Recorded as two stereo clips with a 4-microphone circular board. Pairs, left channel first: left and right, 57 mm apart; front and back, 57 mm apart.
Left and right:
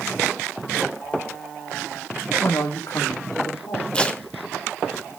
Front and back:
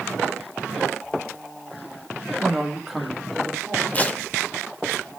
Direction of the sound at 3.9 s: 35° left.